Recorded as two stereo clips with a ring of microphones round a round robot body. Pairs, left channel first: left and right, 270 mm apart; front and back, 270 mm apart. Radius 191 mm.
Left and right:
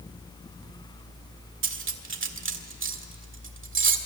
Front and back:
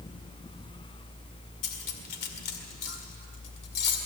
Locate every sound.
1.6 s cutlery clinking: 45° right, 1.8 m